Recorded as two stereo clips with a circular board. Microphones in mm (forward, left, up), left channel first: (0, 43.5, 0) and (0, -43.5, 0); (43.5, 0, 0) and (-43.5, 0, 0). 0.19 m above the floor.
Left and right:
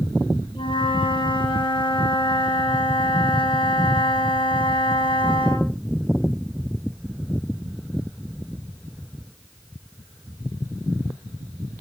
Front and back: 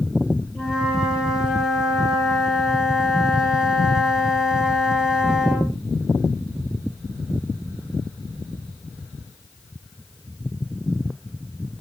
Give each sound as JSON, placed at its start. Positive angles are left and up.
{"t": 0.6, "sound": "a flute", "azimuth_deg": 95, "distance_m": 6.0}